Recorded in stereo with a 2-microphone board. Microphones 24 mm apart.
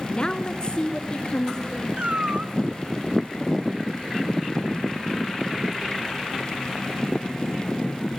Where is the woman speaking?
30° left (ahead or behind), 1.4 m; by 1.9 s 35° left (ahead or behind), 3 m.